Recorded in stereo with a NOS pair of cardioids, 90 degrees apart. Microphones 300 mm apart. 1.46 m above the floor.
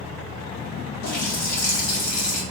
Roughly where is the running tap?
Ahead left.